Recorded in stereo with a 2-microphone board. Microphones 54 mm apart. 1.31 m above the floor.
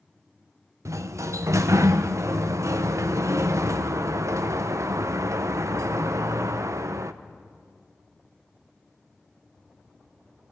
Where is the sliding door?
65° right (ahead or behind), 0.5 m.